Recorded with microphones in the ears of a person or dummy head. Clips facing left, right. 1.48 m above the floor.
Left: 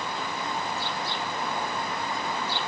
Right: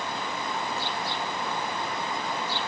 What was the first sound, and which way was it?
Only background noise.